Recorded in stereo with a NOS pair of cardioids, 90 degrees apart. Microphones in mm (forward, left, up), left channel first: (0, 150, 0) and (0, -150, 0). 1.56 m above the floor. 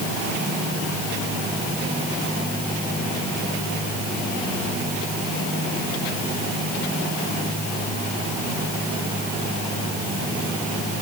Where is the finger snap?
No finger snap in this recording.